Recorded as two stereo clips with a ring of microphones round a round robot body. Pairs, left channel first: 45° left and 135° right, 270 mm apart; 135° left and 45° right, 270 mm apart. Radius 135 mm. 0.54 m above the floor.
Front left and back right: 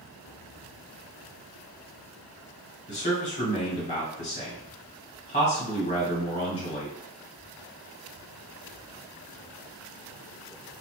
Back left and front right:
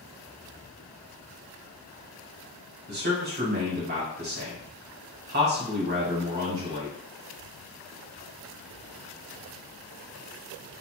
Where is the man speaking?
10° right, 1.8 m.